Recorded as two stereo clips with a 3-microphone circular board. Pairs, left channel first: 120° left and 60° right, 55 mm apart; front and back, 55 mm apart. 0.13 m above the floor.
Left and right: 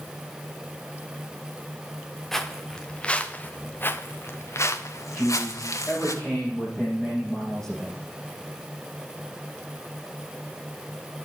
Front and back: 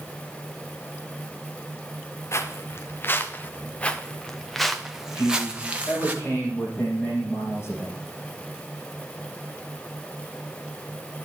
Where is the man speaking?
45° left, 5 m.